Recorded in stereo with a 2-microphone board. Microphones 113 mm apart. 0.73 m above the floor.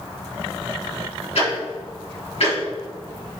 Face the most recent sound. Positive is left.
turn(degrees=75)  # may be behind; listen again after turning